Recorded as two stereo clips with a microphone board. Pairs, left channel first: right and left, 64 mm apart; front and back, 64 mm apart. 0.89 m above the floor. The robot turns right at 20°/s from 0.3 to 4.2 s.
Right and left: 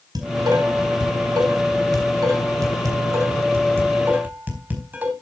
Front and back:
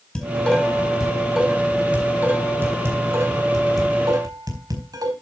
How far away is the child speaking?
I don't hear a child speaking.